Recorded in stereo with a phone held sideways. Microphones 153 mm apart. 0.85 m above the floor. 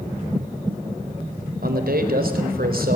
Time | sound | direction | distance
1.6 | a man speaking | 80° right | 4 m